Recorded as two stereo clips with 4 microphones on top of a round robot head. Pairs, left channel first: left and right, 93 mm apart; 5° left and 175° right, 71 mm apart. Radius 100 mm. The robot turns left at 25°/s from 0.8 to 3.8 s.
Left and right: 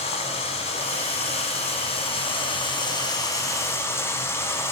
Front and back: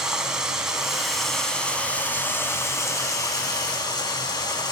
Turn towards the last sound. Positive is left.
turn(degrees=25)